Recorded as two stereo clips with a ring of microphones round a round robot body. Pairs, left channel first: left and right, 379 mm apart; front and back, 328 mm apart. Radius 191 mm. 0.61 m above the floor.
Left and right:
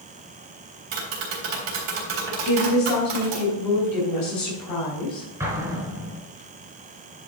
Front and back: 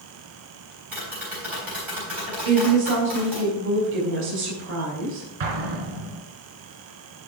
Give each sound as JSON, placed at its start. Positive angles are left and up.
{"t": 0.9, "sound": "tapping", "azimuth_deg": -95, "distance_m": 3.5}
{"t": 2.4, "sound": "a woman speaking", "azimuth_deg": 130, "distance_m": 3.5}
{"t": 5.4, "sound": "an explosion", "azimuth_deg": -175, "distance_m": 2.0}